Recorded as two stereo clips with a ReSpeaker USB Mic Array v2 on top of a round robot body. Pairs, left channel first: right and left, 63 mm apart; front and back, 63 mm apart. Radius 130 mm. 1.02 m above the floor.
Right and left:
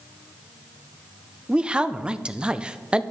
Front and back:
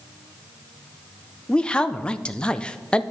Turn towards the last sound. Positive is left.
turn(degrees=50)